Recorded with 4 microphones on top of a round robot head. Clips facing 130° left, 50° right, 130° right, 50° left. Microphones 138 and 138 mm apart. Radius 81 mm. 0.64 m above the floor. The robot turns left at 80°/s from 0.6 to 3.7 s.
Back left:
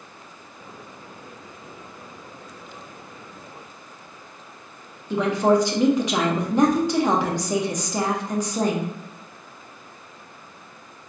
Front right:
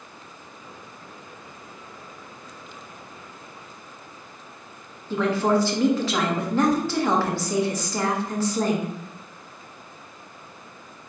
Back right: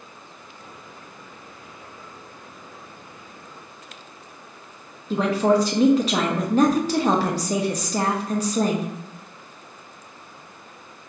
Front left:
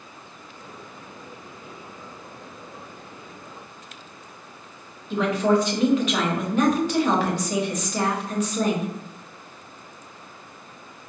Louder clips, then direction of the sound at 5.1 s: Back left 2 dB, back right 1 dB; 165° right.